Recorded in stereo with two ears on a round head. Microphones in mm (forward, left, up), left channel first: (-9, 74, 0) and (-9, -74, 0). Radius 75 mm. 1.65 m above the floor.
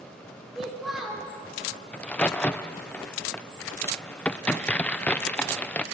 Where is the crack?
10° left (ahead or behind), 0.6 m.